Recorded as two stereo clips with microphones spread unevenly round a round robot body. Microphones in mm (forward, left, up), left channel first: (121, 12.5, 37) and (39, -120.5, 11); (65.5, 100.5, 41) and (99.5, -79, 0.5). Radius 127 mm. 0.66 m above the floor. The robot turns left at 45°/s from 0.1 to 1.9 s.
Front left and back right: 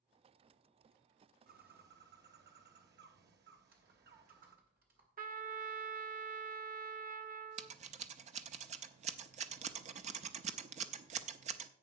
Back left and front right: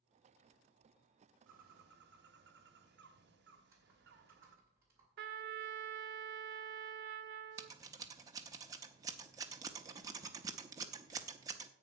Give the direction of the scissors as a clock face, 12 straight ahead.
5 o'clock.